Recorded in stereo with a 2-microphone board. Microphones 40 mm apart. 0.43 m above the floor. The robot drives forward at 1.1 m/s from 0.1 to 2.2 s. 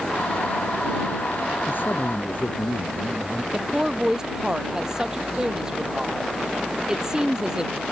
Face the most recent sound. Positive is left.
turn(degrees=-15)  # may be behind; listen again after turning